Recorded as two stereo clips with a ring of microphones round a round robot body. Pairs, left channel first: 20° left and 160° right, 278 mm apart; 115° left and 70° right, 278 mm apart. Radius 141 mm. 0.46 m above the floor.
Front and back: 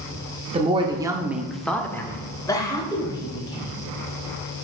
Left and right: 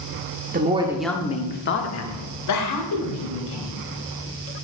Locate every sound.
0.5 s a woman speaking: 100° right, 0.9 m; by 3.7 s 95° left, 2.5 m